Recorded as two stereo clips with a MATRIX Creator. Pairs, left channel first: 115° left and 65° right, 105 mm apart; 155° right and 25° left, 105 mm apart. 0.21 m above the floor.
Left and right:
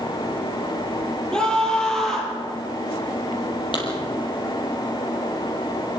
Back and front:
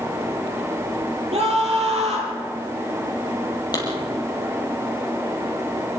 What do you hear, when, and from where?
1.3 s a scream: 30° left, 8.5 m; by 2.4 s 25° left, 7 m
3.7 s a clap: 150° left, 6 m